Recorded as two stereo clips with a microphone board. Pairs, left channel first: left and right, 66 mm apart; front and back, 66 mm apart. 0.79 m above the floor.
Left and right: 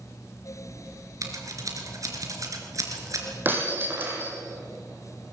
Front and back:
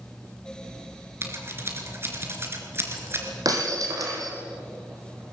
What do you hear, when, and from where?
1.2 s scissors: 125° right, 3.5 m
3.5 s breaking glass: 150° right, 4 m